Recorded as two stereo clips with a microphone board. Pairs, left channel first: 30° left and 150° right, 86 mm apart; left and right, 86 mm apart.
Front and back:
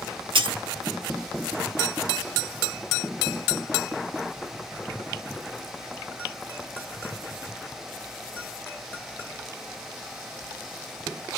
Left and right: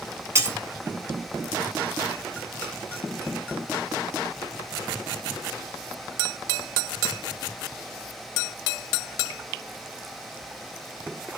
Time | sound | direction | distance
0.3 | breaking glass | 150° right | 0.8 m